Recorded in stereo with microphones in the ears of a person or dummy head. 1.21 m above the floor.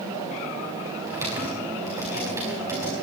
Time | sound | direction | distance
1.1 | typing on a keyboard | 15° right (ahead or behind) | 5 m